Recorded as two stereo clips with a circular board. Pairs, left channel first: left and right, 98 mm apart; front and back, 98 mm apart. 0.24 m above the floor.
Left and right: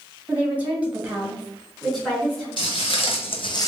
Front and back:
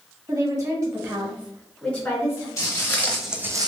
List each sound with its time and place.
0.3 s a woman speaking: 155° right, 1.7 m; by 2.5 s 20° left, 1.3 m
2.6 s footsteps: 60° left, 1.1 m; by 3.7 s 140° left, 0.5 m